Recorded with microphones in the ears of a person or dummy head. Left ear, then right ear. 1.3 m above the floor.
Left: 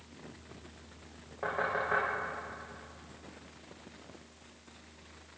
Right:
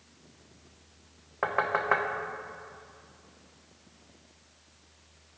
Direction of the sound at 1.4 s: 50° right (ahead or behind).